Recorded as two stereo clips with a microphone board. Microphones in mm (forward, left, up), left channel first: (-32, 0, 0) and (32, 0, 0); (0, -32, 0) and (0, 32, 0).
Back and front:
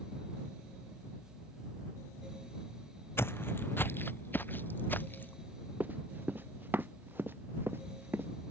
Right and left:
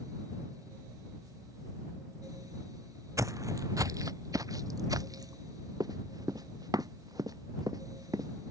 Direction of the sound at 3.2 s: 125° left.